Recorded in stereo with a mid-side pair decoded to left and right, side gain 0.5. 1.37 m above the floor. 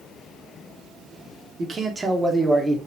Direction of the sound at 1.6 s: 45° right.